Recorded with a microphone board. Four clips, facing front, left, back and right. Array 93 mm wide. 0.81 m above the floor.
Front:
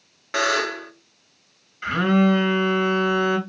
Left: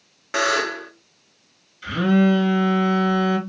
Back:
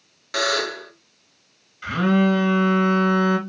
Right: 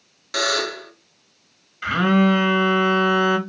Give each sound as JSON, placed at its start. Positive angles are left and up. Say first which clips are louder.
{"t": 0.3, "sound": "a buzzer", "louder": "left 2 dB, front 1 dB", "azimuth_deg": 55, "distance_m": 0.5}
{"t": 1.8, "sound": "a phone buzzing", "louder": "right 1 dB, even", "azimuth_deg": -70, "distance_m": 0.9}